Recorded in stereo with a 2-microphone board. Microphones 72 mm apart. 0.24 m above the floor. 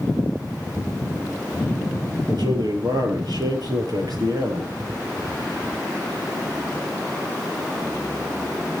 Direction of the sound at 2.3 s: 70° right (ahead or behind).